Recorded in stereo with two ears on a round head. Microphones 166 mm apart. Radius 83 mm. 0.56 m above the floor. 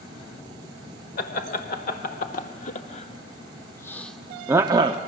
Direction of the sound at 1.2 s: 50° left (ahead or behind).